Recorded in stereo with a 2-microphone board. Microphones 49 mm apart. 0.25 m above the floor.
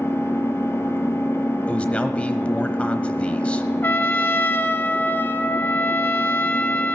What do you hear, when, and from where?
0.0 s an engine running: 55° left (ahead or behind), 2.0 m
1.7 s a man speaking: 25° left (ahead or behind), 1.0 m
3.8 s a trumpet: 45° left (ahead or behind), 0.8 m